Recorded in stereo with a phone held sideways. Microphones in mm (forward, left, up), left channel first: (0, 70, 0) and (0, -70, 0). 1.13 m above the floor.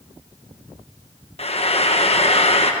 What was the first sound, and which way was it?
Frying, 45° left (ahead or behind).